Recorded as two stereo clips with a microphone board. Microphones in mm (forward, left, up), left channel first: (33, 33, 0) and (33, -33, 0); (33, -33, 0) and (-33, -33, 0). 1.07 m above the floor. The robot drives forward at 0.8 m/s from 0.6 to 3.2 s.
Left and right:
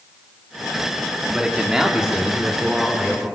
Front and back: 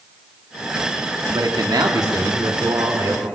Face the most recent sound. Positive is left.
turn(degrees=-175)